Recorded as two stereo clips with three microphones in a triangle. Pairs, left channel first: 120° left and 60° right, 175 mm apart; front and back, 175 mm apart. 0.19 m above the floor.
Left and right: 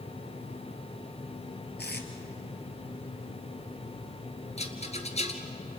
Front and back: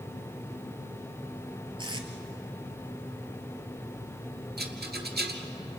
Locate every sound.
1.8 s tape being pulled: 120° left, 2 m
4.6 s a rattle: 170° left, 2 m